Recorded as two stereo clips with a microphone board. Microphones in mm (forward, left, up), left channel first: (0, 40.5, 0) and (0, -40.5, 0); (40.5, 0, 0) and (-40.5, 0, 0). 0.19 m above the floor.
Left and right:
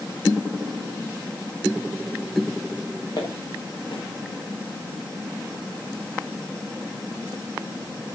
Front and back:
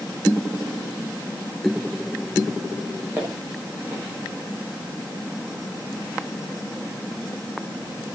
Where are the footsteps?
115° left, 8.5 m.